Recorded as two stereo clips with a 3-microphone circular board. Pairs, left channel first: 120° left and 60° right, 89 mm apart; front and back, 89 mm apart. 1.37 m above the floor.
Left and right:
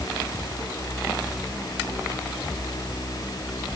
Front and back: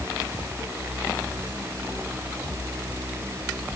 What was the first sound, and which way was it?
Only background noise.